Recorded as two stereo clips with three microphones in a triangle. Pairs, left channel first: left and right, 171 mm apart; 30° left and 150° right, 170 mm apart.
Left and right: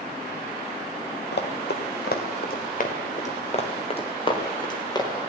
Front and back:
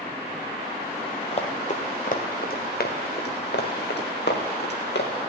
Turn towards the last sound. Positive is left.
turn(degrees=25)